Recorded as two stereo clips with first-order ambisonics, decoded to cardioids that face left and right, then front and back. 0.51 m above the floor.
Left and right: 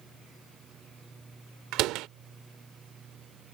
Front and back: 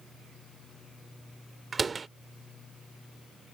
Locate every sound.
1.7 s a door slam: 110° right